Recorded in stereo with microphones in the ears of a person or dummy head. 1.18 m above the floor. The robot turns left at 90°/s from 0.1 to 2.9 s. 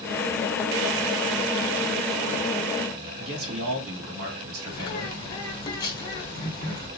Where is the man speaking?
65° right (ahead or behind), 2 m.